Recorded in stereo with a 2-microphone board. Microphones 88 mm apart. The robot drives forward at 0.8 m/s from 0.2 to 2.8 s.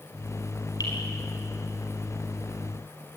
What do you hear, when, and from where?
0.8 s dripping: 45° left (ahead or behind), 6 m; by 0.9 s 50° left (ahead or behind), 6 m